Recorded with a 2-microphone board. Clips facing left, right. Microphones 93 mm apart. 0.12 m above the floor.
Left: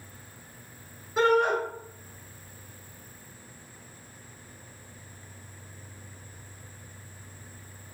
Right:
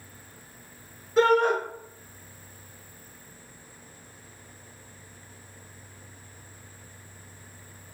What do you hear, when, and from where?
1.2 s a shout: 5° left (ahead or behind), 1.4 m